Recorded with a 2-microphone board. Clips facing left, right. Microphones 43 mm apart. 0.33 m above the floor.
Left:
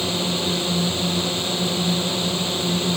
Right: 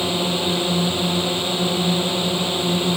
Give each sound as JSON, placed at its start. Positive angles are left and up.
{"t": 0.0, "sound": "a drone", "side_deg": -25}